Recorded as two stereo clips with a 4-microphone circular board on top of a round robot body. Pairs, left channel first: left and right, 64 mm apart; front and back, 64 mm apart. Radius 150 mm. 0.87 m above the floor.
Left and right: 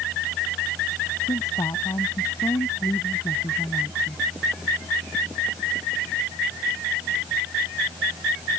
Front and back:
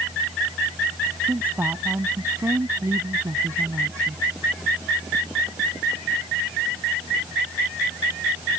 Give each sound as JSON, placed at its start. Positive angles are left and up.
{"t": 1.3, "sound": "a woman speaking", "azimuth_deg": 120}